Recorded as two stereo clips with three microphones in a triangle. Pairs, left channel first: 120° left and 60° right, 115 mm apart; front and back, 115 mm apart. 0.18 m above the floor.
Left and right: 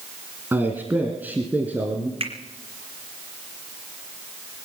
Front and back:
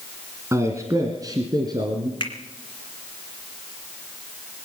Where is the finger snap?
40° right, 2.5 m.